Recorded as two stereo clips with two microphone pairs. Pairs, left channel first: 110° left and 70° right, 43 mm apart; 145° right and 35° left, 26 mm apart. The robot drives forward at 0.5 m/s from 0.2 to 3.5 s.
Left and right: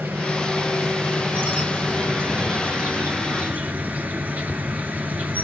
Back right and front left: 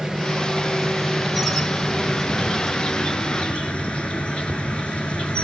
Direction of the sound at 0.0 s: 40° right.